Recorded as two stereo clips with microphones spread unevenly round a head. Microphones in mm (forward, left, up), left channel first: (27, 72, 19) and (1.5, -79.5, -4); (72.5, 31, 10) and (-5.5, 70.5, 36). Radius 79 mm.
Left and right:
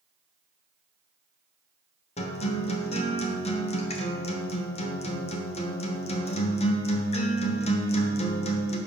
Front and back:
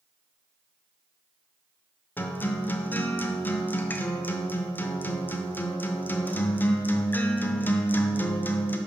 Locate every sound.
2.2 s a guitar: 50° left, 0.8 m